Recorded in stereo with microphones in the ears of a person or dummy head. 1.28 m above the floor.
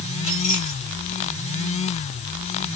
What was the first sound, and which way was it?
Keys jangling, 40° left (ahead or behind).